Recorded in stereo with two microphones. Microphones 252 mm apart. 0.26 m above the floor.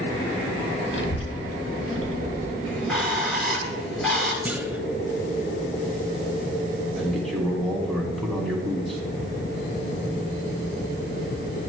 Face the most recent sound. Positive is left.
turn(degrees=0)  # may be behind; listen again after turning